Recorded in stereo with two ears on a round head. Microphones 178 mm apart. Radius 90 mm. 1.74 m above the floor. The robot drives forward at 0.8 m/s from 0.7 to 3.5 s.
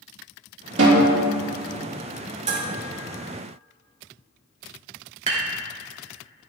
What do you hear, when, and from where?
0.8 s a snare drum: 65° right (ahead or behind), 3 m; by 1.2 s 70° right (ahead or behind), 3 m
2.5 s dishes clattering: 35° right (ahead or behind), 3.5 m
5.3 s dishes clattering: 35° right (ahead or behind), 3 m